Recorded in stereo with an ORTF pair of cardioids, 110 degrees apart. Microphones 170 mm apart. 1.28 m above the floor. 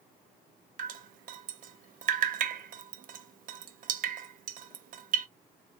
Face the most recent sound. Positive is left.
turn(degrees=-55)